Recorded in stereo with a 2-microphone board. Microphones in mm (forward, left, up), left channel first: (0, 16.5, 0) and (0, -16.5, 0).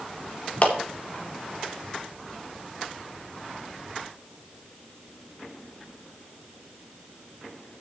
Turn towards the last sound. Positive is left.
turn(degrees=45)  # may be behind; listen again after turning